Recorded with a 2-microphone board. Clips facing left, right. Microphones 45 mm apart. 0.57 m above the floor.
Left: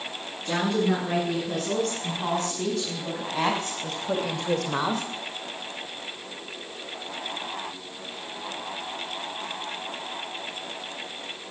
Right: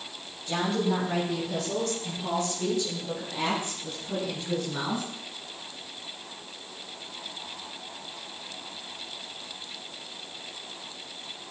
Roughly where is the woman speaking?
Left.